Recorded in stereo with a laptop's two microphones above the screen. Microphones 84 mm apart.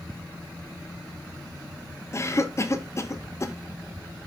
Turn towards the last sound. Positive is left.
turn(degrees=35)  # may be behind; listen again after turning